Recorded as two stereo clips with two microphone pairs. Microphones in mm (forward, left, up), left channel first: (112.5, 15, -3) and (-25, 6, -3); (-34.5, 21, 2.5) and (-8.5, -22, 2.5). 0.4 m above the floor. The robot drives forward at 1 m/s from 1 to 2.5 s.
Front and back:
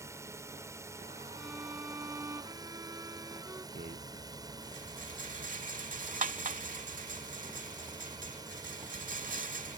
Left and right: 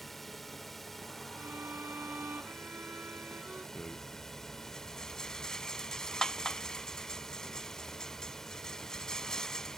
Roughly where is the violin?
Right.